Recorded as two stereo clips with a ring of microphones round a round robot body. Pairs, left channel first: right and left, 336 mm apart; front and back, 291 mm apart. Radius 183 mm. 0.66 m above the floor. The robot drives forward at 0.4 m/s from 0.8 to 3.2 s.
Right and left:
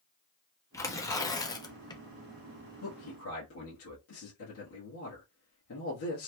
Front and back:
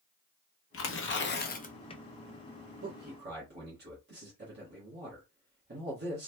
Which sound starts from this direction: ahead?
Tearing paper, at 0.7 s.